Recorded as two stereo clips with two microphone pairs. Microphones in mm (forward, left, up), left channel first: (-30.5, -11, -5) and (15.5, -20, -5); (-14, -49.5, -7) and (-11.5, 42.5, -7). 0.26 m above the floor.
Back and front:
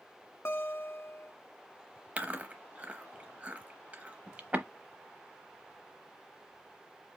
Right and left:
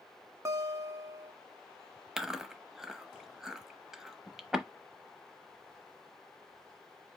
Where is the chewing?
5° left, 0.8 m.